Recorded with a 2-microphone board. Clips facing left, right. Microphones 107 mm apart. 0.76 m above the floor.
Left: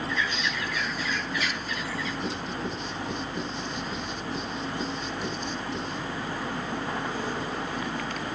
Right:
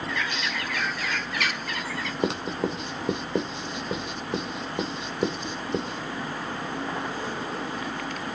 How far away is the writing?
About 2.5 m.